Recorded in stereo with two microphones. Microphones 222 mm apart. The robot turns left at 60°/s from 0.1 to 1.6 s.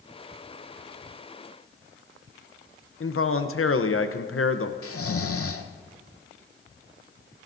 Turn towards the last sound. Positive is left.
turn(degrees=80)